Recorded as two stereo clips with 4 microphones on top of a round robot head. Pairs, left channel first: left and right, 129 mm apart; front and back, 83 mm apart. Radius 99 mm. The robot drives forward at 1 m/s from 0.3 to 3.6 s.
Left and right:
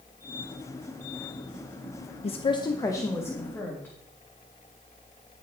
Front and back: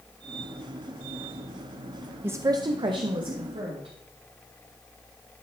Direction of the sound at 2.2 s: 115° left.